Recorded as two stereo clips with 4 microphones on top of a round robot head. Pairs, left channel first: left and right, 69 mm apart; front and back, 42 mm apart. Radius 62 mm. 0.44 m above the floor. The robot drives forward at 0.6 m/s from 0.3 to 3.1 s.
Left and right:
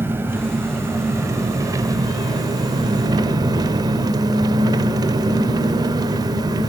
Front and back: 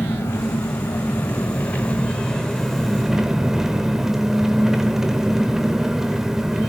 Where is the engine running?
35° right, 2.0 m; by 6.7 s 95° right, 1.2 m.